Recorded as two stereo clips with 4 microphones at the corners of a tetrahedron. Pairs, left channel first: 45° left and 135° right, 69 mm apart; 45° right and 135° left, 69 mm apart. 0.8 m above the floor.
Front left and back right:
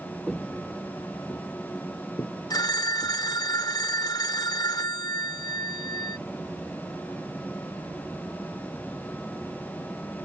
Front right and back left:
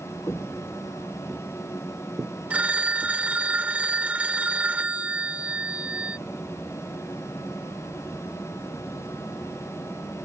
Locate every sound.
0.3 s footsteps: 30° right; by 3.2 s 80° left
2.5 s a phone ringing: 65° left